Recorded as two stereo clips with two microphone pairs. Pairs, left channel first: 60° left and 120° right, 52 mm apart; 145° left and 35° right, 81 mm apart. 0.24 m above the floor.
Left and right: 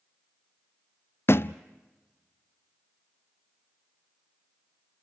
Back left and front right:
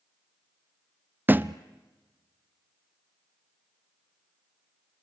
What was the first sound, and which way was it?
A thud, 30° left.